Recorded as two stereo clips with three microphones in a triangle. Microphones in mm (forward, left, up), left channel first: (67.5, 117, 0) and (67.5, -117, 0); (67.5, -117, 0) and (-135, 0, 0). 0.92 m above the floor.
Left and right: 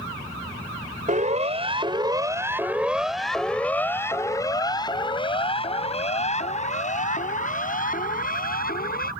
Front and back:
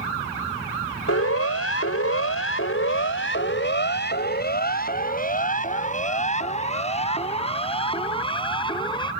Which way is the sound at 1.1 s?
35° right.